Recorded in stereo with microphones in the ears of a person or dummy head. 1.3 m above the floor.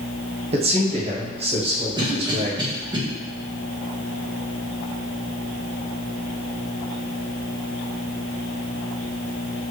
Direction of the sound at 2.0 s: 25° right (ahead or behind).